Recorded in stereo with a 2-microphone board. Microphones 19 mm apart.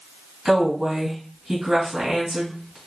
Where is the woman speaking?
40° right (ahead or behind), 3 m.